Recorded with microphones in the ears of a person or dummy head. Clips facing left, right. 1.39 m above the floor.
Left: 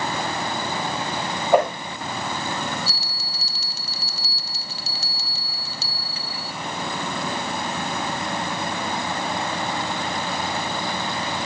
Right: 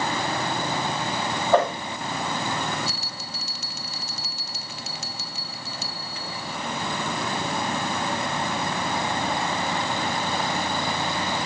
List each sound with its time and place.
1.5 s a whoosh: 10° left (ahead or behind), 5.5 m
2.9 s a bell: 25° left (ahead or behind), 0.9 m